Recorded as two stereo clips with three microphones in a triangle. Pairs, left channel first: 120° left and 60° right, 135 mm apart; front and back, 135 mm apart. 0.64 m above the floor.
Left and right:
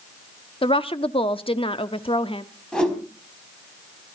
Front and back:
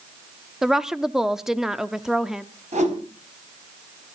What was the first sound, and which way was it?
A woman speaking, 95° left.